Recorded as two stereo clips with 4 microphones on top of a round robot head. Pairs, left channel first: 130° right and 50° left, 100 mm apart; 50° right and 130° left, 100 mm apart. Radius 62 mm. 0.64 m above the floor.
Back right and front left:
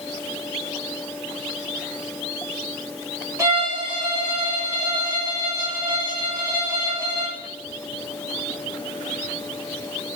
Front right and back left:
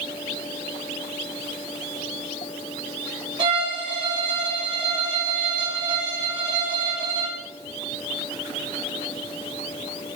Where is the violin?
105° left, 2.0 m.